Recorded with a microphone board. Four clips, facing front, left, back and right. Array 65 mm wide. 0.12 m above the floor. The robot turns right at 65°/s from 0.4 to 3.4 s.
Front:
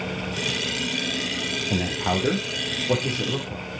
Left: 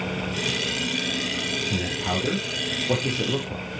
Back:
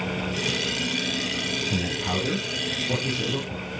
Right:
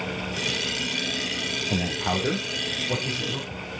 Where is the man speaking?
35° right, 3.5 m; by 3.6 s 75° left, 3.5 m.